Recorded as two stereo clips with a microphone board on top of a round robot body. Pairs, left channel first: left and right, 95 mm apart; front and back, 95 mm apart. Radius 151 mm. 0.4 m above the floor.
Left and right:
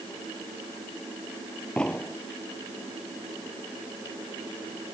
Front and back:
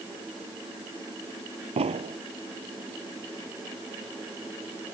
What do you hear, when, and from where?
1.8 s an explosion: 170° left